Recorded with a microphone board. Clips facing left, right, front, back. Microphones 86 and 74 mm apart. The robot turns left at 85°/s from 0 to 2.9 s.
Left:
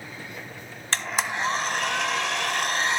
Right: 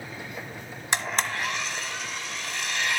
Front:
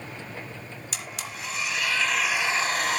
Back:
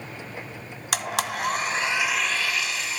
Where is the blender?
165° right, 1.2 m; by 3.0 s 30° left, 1.2 m.